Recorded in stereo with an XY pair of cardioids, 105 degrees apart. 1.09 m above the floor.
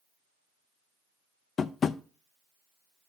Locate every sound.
1.6 s tapping: 45° left, 0.5 m